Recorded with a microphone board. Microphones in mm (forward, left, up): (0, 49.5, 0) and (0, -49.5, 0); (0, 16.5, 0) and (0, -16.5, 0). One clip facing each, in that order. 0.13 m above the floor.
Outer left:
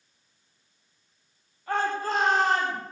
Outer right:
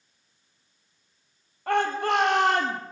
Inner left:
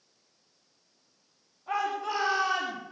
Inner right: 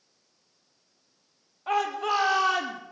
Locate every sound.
1.7 s a shout: 65° right (ahead or behind), 4 m; by 2.8 s 70° right (ahead or behind), 4 m